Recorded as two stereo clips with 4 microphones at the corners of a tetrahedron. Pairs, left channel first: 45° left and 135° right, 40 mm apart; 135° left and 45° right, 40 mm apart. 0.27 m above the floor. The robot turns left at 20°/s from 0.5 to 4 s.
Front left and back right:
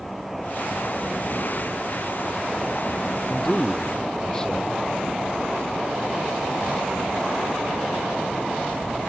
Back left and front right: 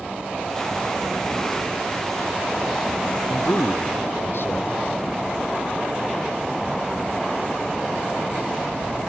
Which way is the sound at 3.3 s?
130° left.